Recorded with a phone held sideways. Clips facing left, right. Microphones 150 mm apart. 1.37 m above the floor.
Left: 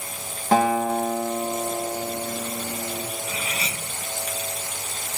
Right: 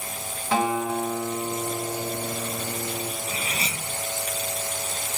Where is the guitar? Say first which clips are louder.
Left 4 dB; 45° left (ahead or behind), 1.0 m.